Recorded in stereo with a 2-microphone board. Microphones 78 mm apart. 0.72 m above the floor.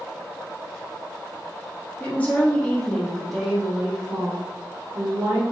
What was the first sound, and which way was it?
A woman speaking, 25° left (ahead or behind).